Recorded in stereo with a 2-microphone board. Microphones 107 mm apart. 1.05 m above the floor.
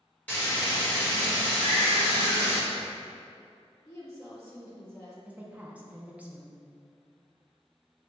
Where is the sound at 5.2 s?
15° right (ahead or behind), 0.5 m.